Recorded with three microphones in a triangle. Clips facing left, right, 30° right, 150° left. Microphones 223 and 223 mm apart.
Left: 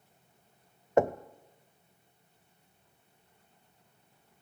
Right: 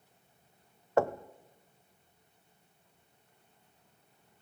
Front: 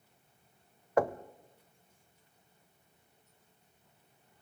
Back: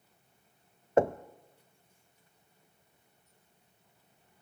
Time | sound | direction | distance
1.0 | knocking | 130° left | 0.6 m